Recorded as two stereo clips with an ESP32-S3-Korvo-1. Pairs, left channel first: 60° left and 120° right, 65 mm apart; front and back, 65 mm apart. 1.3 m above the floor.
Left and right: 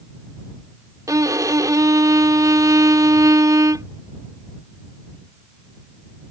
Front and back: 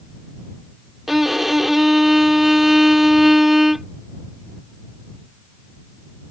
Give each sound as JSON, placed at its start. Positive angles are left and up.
{"t": 1.1, "sound": "a violin", "azimuth_deg": -95}